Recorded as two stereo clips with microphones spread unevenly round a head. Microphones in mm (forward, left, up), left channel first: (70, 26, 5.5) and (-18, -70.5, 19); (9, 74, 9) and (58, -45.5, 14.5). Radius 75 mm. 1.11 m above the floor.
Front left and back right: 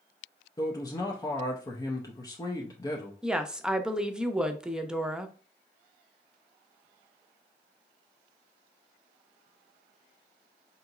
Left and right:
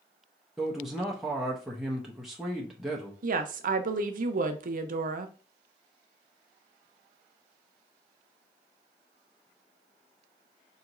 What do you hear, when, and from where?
0.6 s a man speaking: 20° left, 0.7 m
3.2 s a woman speaking: 50° right, 0.6 m